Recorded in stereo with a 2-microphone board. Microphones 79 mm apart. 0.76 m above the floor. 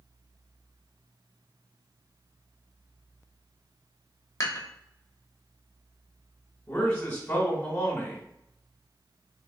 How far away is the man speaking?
About 1.1 m.